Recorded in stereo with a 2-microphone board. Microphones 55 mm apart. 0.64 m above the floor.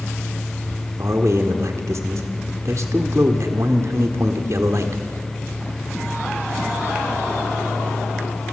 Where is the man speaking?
65° right (ahead or behind), 1.3 m.